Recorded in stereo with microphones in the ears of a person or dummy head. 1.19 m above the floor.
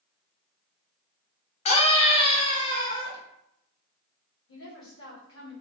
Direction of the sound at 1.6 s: 35° left (ahead or behind).